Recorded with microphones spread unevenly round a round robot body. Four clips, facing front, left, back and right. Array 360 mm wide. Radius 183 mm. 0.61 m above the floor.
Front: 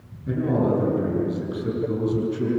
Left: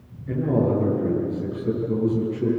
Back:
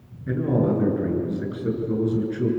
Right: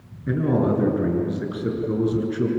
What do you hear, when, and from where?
0.3 s a man speaking: 100° right, 8.5 m